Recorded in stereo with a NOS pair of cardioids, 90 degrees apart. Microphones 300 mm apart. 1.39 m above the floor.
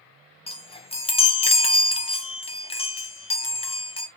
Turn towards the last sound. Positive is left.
turn(degrees=20)